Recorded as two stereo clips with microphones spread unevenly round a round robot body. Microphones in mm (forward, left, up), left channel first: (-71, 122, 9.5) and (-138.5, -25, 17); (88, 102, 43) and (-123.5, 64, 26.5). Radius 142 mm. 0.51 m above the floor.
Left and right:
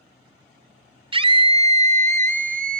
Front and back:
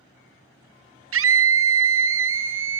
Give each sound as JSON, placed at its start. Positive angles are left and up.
{"t": 1.1, "sound": "a scream", "azimuth_deg": -170, "distance_m": 2.5}